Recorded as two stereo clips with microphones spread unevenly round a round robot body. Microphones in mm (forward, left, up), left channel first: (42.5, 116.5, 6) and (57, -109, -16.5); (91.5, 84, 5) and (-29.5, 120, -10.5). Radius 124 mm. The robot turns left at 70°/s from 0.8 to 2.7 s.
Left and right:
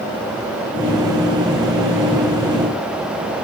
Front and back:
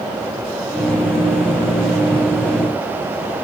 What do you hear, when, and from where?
Only background noise.